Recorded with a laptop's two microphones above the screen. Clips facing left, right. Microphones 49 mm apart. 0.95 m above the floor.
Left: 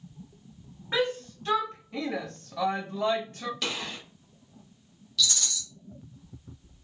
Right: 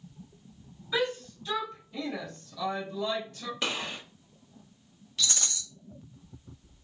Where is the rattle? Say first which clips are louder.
Left 3 dB; 35° right (ahead or behind), 0.8 m.